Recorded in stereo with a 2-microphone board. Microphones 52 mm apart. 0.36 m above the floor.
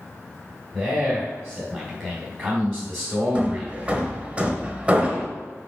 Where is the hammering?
25° right (ahead or behind), 0.9 m.